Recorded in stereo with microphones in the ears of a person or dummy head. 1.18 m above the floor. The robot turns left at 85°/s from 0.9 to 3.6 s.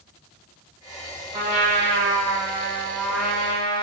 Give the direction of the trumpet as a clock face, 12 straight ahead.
1 o'clock.